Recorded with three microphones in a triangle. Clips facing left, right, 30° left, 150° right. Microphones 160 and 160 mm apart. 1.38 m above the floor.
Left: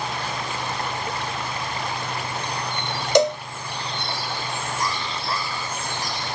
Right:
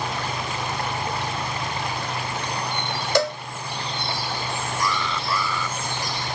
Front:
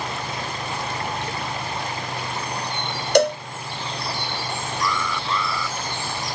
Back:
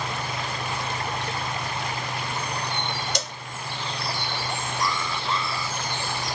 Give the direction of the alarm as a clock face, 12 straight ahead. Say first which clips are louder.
Right 2 dB, front 3 dB; 7 o'clock.